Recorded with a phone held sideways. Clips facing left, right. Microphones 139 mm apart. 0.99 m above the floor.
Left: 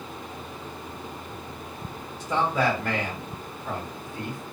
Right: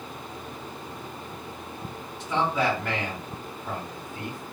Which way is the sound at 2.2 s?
45° left (ahead or behind).